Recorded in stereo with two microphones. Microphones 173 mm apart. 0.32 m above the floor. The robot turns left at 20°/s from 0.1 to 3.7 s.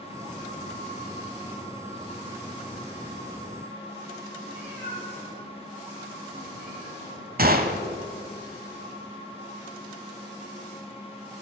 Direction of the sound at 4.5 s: 40° right (ahead or behind).